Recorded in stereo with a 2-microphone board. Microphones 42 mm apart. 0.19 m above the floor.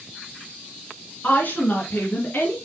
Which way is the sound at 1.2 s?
35° left (ahead or behind).